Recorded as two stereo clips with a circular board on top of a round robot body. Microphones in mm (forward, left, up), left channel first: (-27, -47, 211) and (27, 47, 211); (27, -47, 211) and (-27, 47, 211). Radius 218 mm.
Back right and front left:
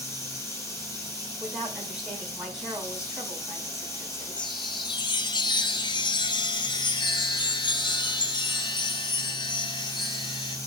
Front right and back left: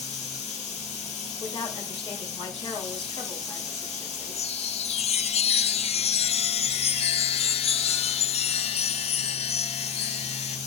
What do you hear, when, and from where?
0.0 s running water: 55° right, 4 m
1.4 s a woman speaking: 25° right, 4.5 m
4.4 s a chime: 75° right, 0.8 m